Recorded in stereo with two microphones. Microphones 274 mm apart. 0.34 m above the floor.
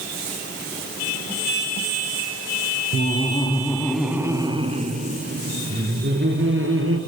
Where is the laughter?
35° left (ahead or behind), 2.5 m; by 7.0 s 50° right (ahead or behind), 5 m.